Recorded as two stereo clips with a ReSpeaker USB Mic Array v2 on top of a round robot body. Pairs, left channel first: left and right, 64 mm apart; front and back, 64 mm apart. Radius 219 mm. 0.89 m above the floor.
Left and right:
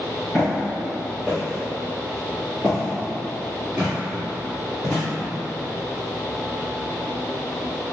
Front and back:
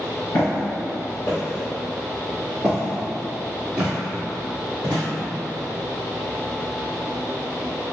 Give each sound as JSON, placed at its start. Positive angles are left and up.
{"t": 0.3, "sound": "footsteps", "azimuth_deg": 0, "distance_m": 1.3}